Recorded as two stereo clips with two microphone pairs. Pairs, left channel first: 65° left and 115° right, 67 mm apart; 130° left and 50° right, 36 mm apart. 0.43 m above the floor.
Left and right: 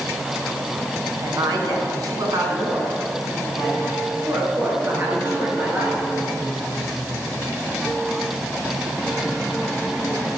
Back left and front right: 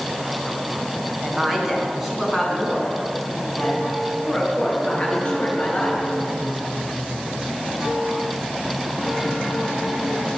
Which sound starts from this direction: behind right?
A woman speaking, at 1.2 s.